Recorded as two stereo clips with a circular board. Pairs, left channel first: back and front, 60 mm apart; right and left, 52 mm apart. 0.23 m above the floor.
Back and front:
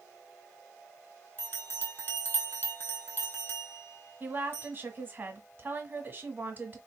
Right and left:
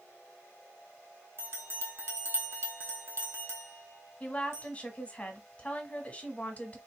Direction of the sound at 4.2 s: 40° right.